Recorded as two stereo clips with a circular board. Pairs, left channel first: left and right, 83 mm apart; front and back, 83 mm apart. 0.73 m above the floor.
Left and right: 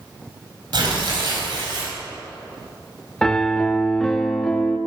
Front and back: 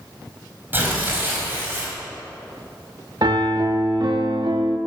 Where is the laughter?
No laughter in this recording.